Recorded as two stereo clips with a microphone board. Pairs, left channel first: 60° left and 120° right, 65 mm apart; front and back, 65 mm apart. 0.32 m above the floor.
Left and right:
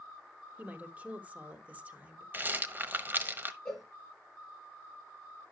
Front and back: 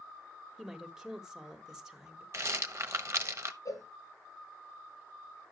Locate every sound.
0.6 s a woman speaking: 110° right, 1.4 m
2.3 s a rattle: 165° right, 1.0 m
3.6 s a cowbell: 25° right, 3.5 m